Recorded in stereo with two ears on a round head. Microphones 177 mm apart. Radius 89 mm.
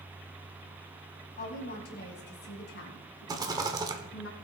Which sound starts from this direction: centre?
A rattle, at 3.3 s.